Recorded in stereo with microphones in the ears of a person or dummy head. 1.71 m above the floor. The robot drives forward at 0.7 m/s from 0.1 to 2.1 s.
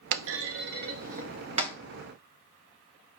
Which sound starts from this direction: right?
A clunk, at 0.1 s.